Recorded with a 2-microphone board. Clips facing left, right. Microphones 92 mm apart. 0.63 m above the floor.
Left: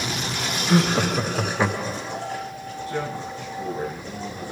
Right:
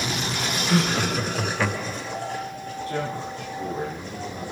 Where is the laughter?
20° left (ahead or behind), 0.8 m.